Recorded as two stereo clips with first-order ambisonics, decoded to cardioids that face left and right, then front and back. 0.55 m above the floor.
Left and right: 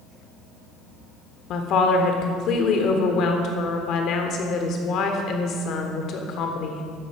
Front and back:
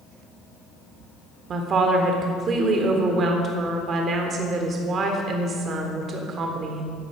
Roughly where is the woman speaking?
Behind left.